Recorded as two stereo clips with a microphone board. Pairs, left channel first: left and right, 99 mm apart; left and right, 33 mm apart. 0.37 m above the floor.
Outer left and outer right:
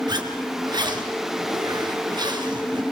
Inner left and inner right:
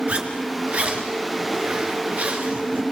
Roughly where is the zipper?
Right.